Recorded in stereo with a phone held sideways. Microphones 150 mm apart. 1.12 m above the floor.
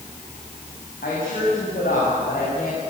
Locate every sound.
1.0 s a woman speaking: 75° left (ahead or behind), 8 m; by 2.8 s 85° left, 6 m